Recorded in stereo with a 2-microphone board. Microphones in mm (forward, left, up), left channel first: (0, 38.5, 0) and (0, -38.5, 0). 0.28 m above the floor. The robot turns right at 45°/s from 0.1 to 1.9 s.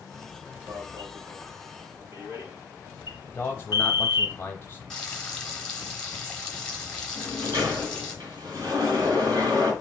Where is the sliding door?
50° right (ahead or behind), 2.5 m.